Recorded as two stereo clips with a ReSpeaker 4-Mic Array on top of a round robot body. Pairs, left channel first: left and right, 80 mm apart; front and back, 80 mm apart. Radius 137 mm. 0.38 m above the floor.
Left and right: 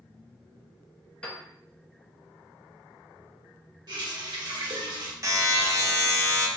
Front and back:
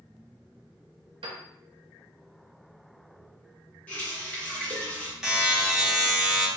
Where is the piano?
165° left, 0.7 m.